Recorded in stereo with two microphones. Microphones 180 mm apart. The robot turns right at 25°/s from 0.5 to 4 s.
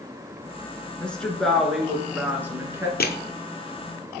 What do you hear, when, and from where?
1.0 s a woman speaking: 5° left (ahead or behind), 1.3 m; by 2.9 s 15° right (ahead or behind), 1.3 m
3.0 s crushing: 65° left (ahead or behind), 0.7 m